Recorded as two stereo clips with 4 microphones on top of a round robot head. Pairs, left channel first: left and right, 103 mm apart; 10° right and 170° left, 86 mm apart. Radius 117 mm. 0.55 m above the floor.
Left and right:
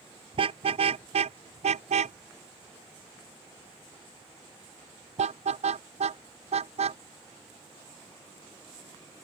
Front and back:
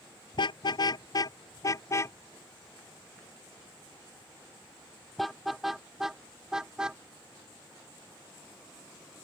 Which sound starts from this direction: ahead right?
A car horn, at 0.3 s.